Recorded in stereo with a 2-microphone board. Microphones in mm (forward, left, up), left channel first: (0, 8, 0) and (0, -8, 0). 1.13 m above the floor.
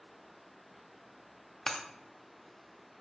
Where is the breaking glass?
25° left (ahead or behind), 0.8 m.